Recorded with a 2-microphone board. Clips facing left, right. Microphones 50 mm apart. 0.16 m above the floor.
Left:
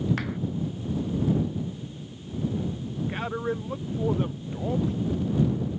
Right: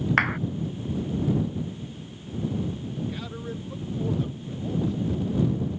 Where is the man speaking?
40° left (ahead or behind).